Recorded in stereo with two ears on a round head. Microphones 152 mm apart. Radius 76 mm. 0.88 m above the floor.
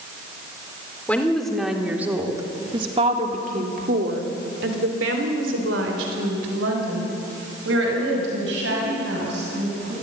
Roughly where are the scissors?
I don't hear scissors.